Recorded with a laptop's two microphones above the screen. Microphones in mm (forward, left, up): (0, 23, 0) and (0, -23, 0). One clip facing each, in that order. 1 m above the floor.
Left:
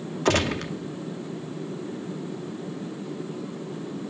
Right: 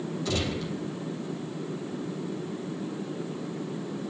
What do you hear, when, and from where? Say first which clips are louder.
0.2 s a gunshot: left 9 dB; 60° left (ahead or behind), 0.8 m